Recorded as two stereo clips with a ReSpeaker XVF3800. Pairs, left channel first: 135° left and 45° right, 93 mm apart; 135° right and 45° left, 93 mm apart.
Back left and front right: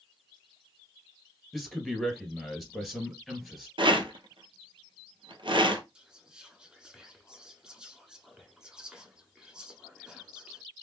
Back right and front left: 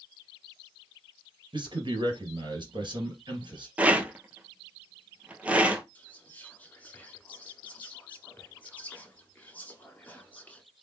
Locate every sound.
1.5 s a man speaking: 45° left, 2.5 m
3.8 s a rattle: 30° right, 0.9 m
6.0 s whispering: 110° right, 1.1 m